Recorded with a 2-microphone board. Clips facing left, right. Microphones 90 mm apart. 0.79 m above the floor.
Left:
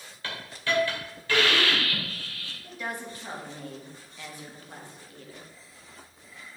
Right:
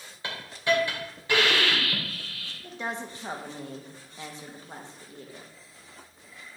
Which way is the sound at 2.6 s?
25° right (ahead or behind).